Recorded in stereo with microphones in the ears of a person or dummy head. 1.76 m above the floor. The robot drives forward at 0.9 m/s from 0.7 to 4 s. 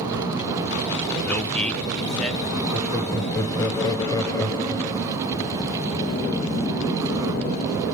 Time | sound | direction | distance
1.2 | a man speaking | 10° left (ahead or behind) | 0.7 m
2.7 | laughter | 5° left (ahead or behind) | 2.5 m